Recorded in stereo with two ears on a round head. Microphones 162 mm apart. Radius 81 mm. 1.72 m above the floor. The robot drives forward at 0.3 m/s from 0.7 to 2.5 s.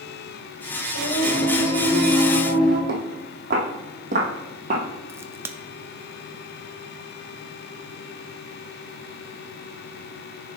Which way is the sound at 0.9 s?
75° left (ahead or behind).